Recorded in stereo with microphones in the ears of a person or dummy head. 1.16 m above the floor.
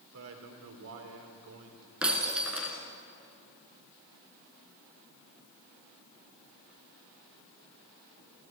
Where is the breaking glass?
10° right (ahead or behind), 3.5 m.